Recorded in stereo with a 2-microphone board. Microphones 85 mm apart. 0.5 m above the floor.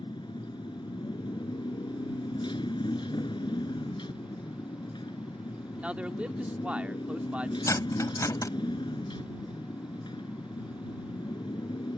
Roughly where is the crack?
No crack in this recording.